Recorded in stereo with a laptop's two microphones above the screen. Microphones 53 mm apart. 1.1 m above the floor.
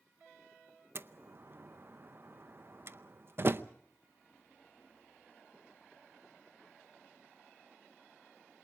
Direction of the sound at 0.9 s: 45° right (ahead or behind).